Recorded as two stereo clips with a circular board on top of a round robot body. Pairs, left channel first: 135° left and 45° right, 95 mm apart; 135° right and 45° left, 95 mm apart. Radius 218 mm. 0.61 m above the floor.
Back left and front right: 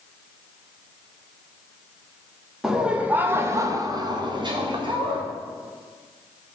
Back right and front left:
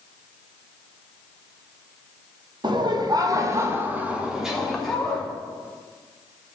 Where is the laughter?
40° left, 1.6 m; by 5.2 s 55° right, 2.0 m.